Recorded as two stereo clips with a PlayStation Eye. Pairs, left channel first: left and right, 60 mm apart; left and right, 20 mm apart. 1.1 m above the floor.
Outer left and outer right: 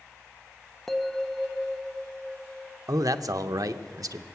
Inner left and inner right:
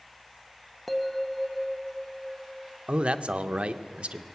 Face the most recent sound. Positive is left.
turn(degrees=-80)